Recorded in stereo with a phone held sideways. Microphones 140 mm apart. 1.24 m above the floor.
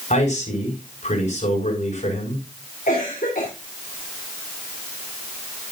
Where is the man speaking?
65° left (ahead or behind), 6 m.